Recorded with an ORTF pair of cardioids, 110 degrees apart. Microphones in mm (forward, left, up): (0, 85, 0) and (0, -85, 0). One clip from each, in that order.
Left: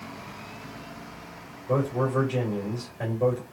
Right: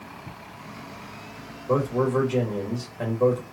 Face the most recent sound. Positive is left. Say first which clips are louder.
# right 3 dB
turn(degrees=-25)